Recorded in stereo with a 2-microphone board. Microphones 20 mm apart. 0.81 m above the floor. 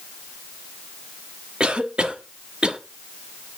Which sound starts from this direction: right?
A cough, at 1.6 s.